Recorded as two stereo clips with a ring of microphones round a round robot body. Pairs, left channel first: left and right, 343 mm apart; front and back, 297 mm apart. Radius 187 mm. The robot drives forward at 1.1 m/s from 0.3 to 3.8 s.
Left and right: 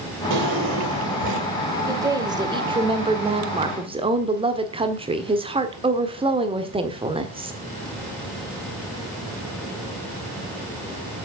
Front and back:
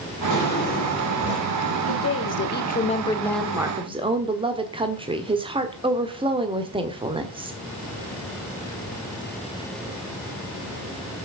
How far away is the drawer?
About 5 m.